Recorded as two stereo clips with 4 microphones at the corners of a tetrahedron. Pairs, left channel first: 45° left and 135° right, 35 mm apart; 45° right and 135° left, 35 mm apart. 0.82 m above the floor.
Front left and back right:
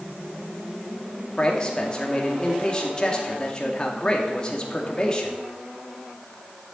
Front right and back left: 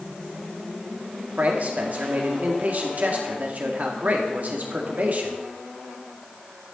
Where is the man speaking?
110° left, 2 m.